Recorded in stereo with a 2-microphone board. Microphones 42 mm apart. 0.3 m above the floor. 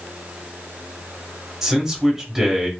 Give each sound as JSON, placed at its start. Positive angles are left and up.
{"t": 1.6, "sound": "a man speaking", "side_deg": -10, "distance_m": 1.1}